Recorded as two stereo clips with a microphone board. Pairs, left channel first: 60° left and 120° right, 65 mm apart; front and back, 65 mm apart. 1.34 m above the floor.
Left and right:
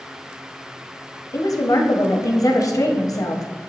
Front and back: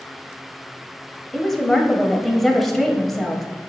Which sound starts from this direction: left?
A woman speaking, at 1.3 s.